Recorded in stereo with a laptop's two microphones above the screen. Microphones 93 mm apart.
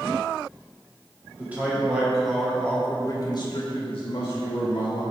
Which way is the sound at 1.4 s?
15° right (ahead or behind).